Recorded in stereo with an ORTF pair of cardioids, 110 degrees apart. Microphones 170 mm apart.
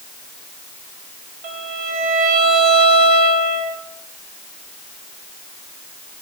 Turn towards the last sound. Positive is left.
turn(degrees=-65)